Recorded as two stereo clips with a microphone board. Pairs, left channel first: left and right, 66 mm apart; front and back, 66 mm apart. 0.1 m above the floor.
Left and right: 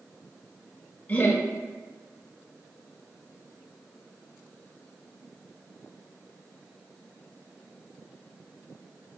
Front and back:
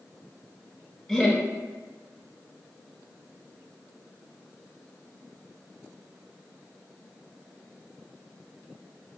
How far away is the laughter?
About 1.2 m.